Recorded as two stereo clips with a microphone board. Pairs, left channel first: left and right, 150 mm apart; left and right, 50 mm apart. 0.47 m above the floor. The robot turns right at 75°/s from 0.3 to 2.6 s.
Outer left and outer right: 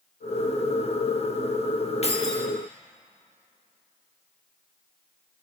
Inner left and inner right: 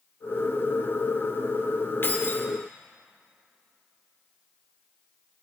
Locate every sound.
2.0 s keys jangling: 80° left, 0.8 m; by 2.5 s 115° left, 0.8 m